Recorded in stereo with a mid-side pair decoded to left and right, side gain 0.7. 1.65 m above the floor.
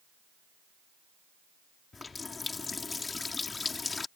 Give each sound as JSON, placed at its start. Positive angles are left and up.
{"t": 1.9, "sound": "a running tap", "azimuth_deg": 20}